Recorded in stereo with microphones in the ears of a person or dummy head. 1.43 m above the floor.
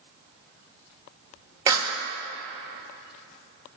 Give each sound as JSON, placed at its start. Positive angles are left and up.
{"t": 1.7, "sound": "a clap", "side_deg": -15, "distance_m": 1.6}